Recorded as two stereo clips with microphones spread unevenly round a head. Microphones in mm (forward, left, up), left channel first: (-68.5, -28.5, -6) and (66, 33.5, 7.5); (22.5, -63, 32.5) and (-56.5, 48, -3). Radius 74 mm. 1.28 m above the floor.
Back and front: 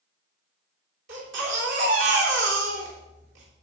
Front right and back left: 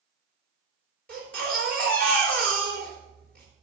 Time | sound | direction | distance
1.1 | a baby crying | 30° left | 3 m